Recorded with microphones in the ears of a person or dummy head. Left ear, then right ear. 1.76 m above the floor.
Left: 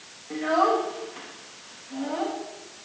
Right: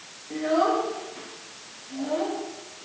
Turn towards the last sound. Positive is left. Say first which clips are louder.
# left 1 dB
turn(degrees=35)  # may be behind; listen again after turning